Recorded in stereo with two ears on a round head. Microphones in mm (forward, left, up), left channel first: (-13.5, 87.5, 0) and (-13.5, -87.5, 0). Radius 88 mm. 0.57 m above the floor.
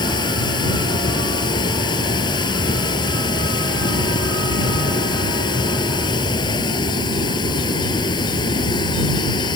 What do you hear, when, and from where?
0.0 s running water: 25° left (ahead or behind)